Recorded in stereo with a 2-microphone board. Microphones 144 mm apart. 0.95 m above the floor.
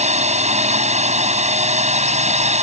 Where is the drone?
50° right (ahead or behind).